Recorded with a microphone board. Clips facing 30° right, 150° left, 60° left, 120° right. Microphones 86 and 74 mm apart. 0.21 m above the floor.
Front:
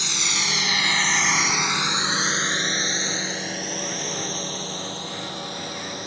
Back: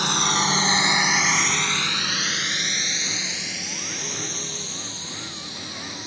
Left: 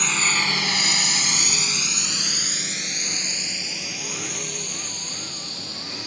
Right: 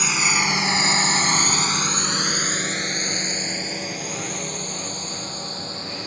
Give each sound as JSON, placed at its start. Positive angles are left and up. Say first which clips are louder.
{"t": 0.0, "sound": "a drone", "louder": "back 7 dB, right 2 dB", "azimuth_deg": 155}